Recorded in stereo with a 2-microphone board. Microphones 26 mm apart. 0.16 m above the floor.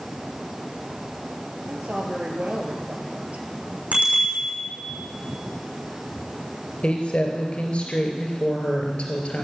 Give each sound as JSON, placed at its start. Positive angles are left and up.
{"t": 1.7, "sound": "a woman speaking", "side_deg": -70, "distance_m": 3.0}
{"t": 3.9, "sound": "a bicycle bell", "side_deg": -60, "distance_m": 6.0}
{"t": 6.8, "sound": "a woman speaking", "side_deg": 50, "distance_m": 3.5}